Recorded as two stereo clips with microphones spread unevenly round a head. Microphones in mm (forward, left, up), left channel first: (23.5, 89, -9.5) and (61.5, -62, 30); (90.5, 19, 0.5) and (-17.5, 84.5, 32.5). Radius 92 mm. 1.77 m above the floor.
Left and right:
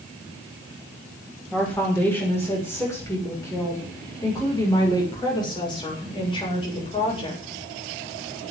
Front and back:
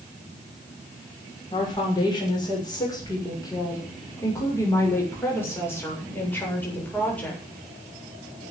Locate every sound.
1.5 s a woman speaking: 25° left, 7 m; by 7.4 s 50° left, 8.5 m